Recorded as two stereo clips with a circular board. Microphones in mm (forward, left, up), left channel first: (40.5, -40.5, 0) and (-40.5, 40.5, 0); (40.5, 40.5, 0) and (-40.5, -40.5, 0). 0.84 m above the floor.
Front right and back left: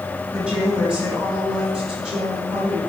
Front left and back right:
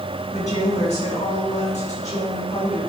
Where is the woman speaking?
55° left, 4.5 m; by 2.8 s 50° left, 6 m.